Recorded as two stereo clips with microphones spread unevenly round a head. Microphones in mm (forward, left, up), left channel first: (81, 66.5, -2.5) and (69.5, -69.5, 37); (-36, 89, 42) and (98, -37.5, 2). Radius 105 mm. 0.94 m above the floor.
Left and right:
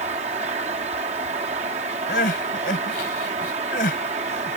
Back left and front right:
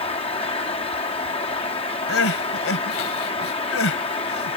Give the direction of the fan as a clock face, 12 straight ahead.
5 o'clock.